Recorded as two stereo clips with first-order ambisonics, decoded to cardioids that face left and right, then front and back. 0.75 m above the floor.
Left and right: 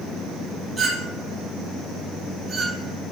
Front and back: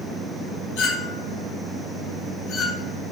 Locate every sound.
0.8 s a clink: 10° right, 5.5 m